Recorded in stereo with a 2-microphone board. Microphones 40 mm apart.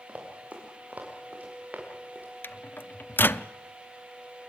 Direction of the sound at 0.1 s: 35° right (ahead or behind).